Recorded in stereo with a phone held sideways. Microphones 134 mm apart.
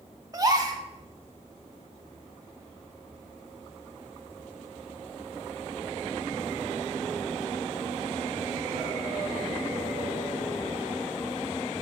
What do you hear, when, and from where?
0.3 s a gasp: 25° right (ahead or behind), 0.7 m